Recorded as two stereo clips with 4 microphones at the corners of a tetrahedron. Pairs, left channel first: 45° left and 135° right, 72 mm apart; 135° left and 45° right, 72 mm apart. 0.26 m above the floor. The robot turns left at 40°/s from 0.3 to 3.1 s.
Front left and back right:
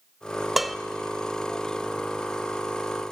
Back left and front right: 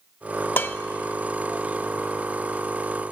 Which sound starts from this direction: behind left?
Dishes clattering, at 0.6 s.